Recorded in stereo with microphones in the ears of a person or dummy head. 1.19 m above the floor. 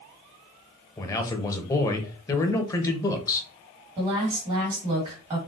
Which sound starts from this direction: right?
A woman speaking, at 4.0 s.